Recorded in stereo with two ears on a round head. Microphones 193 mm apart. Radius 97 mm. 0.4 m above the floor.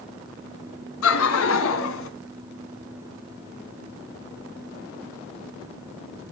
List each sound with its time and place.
1.0 s laughter: 80° left, 4 m; by 2.1 s 75° left (ahead or behind), 3.5 m